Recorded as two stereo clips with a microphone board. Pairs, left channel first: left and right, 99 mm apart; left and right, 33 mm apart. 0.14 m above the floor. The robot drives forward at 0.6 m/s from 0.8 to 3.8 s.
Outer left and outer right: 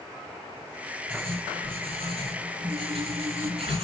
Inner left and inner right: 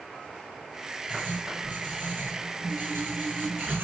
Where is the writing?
75° right (ahead or behind), 6 m; by 3.8 s 85° right, 6 m.